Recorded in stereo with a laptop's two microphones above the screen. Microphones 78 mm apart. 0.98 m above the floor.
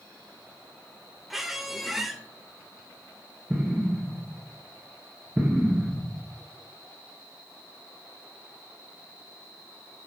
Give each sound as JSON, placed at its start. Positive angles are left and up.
{"t": 1.3, "sound": "a squeak", "side_deg": 0, "distance_m": 0.9}
{"t": 3.5, "sound": "an explosion", "side_deg": -15, "distance_m": 1.4}